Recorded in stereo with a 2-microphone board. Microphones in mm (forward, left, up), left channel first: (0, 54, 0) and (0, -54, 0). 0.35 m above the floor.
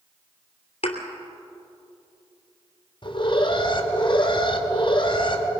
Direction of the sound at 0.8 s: 70° left (ahead or behind).